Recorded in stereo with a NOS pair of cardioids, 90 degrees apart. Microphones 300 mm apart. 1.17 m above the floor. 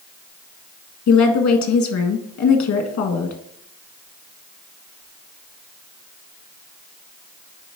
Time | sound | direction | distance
1.1 | a woman speaking | 65° left | 1.8 m